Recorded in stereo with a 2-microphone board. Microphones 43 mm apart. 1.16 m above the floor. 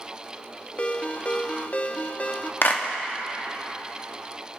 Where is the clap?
55° left (ahead or behind), 1.3 m.